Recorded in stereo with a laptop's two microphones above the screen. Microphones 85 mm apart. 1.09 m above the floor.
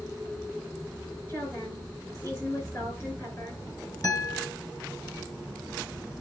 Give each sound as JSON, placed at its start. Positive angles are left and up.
{"t": 1.3, "sound": "a woman speaking", "side_deg": 35, "distance_m": 6.0}
{"t": 4.0, "sound": "a guitar", "side_deg": 45, "distance_m": 3.0}